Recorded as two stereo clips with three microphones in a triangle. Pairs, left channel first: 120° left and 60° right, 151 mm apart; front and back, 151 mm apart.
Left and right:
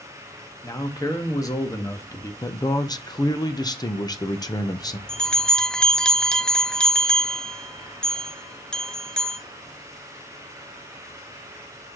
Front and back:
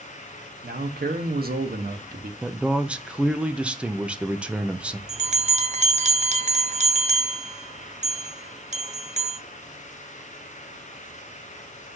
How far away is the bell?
About 0.9 m.